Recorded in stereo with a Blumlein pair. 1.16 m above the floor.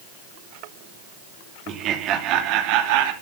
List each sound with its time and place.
1.7 s laughter: 30° right, 3 m; by 3.1 s 50° right, 2.5 m